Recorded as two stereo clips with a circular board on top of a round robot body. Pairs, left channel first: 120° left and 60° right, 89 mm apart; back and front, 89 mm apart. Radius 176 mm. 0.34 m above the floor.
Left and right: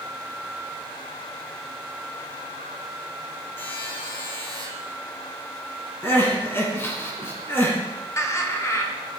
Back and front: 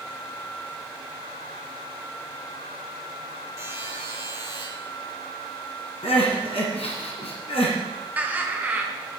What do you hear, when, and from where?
3.6 s a buzzer: 60° left, 6 m
6.0 s crying: 175° right, 1.9 m
8.2 s laughter: 70° left, 2 m